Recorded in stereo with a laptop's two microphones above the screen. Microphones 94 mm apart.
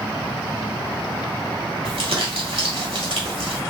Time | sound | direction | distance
1.9 | crumpling | 85° right | 1.6 m